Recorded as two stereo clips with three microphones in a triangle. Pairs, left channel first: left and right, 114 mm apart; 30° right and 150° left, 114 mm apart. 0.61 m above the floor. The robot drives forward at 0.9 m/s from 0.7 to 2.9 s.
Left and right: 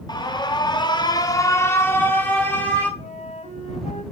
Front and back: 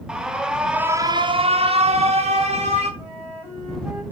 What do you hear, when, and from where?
0.1 s an alarm: 70° left, 0.6 m; by 2.9 s 170° left, 1.9 m
3.0 s a flute: 80° left, 1.5 m